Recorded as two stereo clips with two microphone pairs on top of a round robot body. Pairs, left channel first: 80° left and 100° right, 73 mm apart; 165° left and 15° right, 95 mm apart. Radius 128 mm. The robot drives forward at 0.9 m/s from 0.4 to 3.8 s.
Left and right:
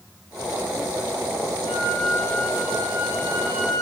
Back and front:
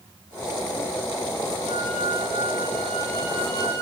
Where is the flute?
35° right, 4 m; by 3.8 s 60° right, 2.5 m.